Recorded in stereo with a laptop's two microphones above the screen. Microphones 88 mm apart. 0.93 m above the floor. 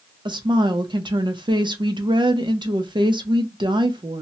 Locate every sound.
0.2 s a woman speaking: 60° right (ahead or behind), 0.6 m